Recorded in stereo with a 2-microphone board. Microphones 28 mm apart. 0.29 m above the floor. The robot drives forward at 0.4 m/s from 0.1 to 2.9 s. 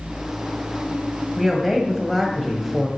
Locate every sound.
1.4 s a woman speaking: centre (ahead or behind), 1.8 m